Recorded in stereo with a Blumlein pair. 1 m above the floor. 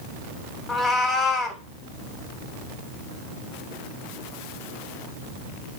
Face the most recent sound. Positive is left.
turn(degrees=15)